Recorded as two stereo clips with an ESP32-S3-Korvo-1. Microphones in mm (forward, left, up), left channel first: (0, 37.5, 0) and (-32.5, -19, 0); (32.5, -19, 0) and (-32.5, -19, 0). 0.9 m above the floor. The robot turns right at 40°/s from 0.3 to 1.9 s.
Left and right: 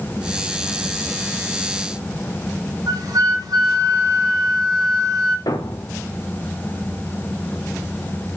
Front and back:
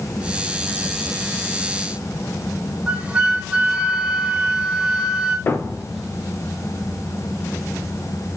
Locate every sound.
2.9 s a flute: 100° right, 2.5 m
5.5 s a thud: 60° left, 1.1 m